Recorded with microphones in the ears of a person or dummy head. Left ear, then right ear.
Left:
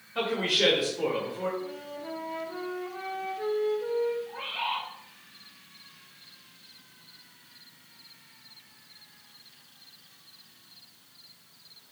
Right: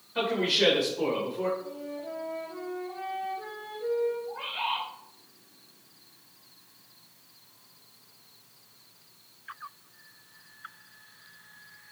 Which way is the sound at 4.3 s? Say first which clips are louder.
Right 1 dB; 35° left (ahead or behind).